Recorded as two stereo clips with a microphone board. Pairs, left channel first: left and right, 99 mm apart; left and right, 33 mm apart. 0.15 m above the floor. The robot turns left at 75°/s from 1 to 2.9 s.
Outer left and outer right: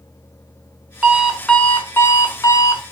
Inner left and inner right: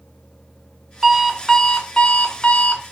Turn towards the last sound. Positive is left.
turn(degrees=65)